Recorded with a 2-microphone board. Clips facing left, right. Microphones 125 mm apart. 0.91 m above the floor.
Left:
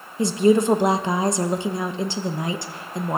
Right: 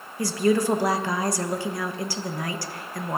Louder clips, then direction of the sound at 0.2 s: Left 5 dB; 20° left (ahead or behind).